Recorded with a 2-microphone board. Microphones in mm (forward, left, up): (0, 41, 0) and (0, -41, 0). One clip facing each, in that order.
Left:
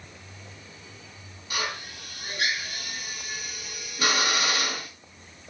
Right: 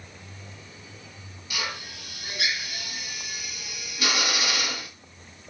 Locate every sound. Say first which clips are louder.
1.5 s a drill: left 2 dB; 40° left (ahead or behind), 4 m